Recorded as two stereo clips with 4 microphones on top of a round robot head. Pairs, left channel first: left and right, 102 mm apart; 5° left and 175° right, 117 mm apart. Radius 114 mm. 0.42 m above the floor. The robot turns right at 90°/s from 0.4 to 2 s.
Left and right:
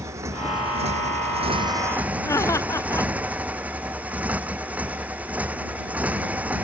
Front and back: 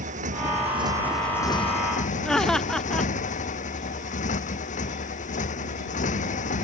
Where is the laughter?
80° left.